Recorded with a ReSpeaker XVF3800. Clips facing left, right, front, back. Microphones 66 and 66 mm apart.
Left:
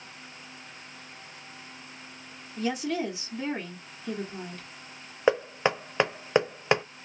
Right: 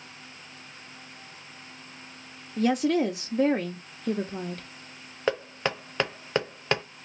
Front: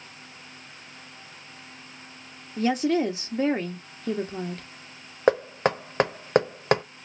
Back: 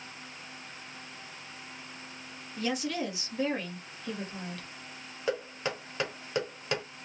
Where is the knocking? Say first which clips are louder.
Left 4 dB, front 11 dB; 20° left, 0.5 m.